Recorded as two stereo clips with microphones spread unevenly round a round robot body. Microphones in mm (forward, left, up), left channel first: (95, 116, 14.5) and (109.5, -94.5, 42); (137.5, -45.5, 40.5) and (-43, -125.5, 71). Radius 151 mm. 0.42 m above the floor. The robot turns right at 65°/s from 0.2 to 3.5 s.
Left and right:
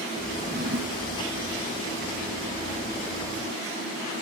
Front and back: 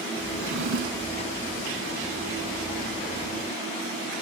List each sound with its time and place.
0.3 s a drawer: 160° right; by 1.2 s 105° right